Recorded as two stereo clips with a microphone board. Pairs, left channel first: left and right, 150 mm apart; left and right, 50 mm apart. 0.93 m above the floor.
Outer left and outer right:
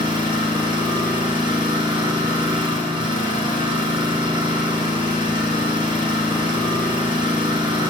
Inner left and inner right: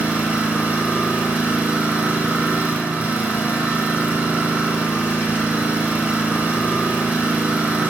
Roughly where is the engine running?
Right.